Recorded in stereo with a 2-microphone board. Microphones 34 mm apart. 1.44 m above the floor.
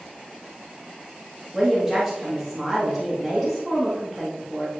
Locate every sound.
1.5 s a woman speaking: 5° right (ahead or behind), 2 m